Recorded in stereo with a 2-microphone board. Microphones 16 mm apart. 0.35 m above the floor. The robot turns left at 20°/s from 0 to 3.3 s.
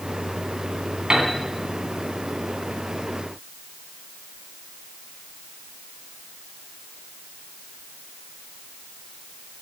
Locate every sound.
1.1 s a piano: 50° right (ahead or behind), 2.5 m; by 1.3 s 55° right (ahead or behind), 2.5 m